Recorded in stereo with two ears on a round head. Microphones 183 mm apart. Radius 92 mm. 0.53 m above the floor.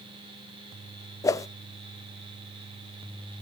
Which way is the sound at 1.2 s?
15° left (ahead or behind).